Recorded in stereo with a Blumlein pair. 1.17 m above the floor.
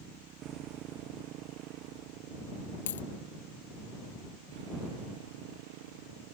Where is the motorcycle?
30° right; by 6.3 s 50° right.